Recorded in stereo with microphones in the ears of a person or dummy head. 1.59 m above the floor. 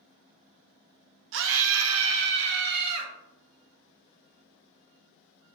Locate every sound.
1.3 s a scream: 60° right (ahead or behind), 0.5 m